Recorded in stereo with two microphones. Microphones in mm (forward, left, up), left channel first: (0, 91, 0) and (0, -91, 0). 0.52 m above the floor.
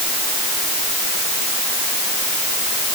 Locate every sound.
Only background noise.